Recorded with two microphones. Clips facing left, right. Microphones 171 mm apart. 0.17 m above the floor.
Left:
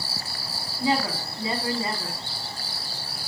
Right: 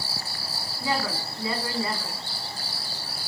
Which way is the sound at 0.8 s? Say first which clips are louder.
Left 4 dB; 25° left (ahead or behind).